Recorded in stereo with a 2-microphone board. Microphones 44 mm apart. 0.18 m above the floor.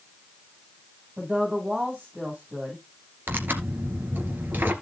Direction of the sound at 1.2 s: 35° right (ahead or behind).